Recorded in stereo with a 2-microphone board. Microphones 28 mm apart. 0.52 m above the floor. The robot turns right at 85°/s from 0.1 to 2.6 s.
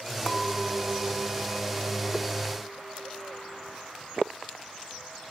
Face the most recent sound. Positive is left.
turn(degrees=20)